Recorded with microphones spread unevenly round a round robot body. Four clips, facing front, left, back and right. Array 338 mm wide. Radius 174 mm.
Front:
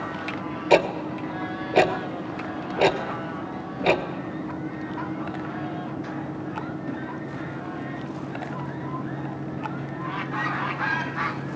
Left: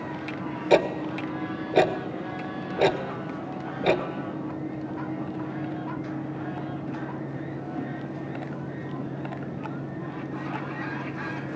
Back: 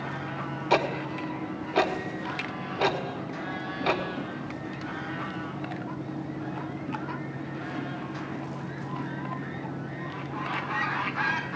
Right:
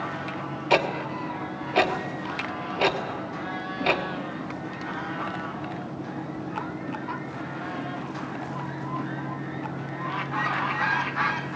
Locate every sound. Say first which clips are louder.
0.7 s ticking: left 3 dB, front 6 dB; 35° left, 1.0 m